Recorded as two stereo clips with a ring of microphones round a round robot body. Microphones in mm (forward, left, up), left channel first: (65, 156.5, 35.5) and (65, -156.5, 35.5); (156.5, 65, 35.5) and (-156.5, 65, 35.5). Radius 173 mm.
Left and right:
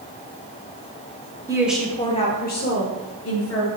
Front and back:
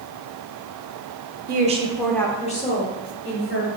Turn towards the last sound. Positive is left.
turn(degrees=45)